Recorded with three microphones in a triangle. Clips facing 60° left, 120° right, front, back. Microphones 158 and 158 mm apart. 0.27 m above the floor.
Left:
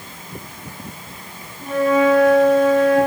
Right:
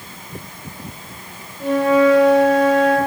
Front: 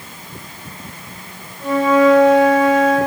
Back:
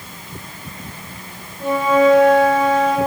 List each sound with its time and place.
1.6 s a flute: 110° right, 7 m